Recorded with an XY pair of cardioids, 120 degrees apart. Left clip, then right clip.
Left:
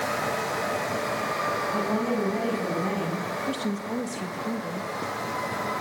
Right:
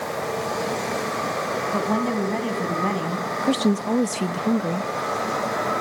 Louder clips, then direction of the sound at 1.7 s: Right 3 dB; 40° right.